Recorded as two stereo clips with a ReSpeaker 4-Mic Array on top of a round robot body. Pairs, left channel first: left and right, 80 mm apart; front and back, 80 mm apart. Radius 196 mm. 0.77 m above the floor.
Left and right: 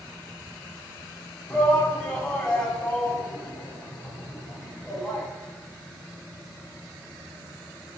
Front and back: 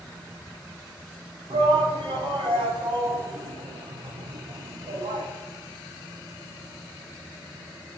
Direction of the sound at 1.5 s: 170° left.